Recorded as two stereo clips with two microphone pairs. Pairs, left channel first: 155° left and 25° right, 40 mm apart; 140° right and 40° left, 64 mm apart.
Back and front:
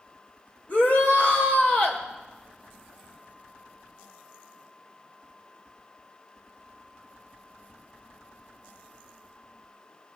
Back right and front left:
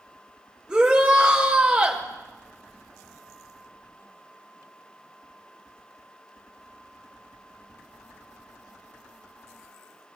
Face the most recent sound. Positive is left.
turn(degrees=115)